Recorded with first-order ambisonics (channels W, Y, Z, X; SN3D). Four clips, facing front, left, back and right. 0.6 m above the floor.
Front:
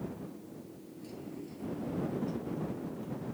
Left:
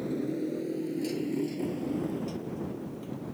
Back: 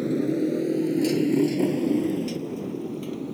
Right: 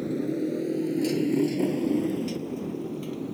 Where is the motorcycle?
170° right; by 3.4 s 145° right.